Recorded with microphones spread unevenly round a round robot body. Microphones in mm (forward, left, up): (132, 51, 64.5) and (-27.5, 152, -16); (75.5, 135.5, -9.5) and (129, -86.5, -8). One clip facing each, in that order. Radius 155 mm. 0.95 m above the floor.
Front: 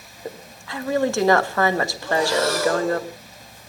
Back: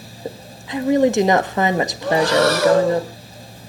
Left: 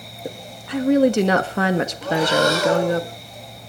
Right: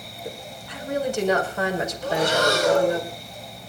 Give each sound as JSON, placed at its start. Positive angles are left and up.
{"t": 0.2, "sound": "a woman speaking", "azimuth_deg": 95, "distance_m": 1.6}
{"t": 2.0, "sound": "breathing", "azimuth_deg": 120, "distance_m": 1.8}